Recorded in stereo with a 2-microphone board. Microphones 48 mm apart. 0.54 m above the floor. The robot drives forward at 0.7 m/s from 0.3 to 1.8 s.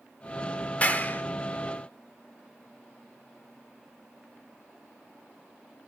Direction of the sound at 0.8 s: 35° left (ahead or behind).